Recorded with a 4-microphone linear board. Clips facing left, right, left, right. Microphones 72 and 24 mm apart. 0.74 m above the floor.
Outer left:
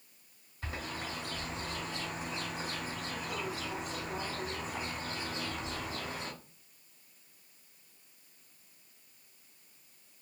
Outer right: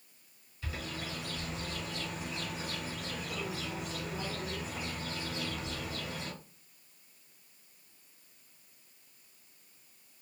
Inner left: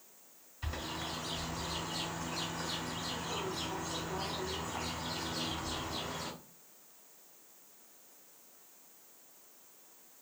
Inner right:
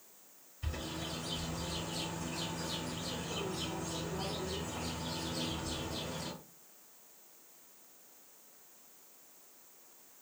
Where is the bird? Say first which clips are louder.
Outer left 1 dB, inner left 1 dB; 40° left (ahead or behind), 2 m.